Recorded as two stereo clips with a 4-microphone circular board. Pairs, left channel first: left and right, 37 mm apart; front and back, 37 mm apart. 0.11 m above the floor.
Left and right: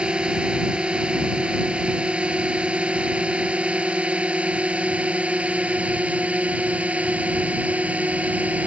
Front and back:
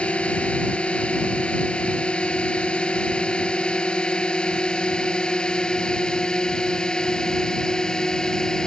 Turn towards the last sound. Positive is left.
turn(degrees=-65)